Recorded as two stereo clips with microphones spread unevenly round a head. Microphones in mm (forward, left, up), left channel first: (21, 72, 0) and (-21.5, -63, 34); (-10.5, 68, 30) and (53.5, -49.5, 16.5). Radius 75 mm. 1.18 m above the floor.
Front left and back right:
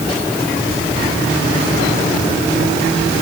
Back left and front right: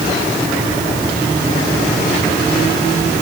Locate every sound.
Only background noise.